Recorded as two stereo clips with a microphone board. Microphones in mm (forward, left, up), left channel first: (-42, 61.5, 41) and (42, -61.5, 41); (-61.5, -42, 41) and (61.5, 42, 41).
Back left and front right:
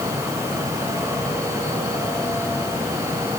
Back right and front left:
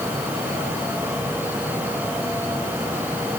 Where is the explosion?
I don't hear an explosion.